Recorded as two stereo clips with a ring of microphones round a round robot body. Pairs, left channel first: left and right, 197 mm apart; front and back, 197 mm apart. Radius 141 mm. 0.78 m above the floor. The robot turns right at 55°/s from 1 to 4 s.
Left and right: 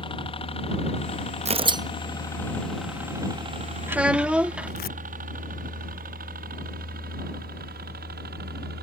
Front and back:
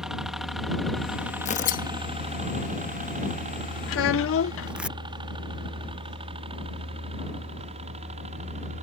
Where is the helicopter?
95° left; by 8.8 s 125° right.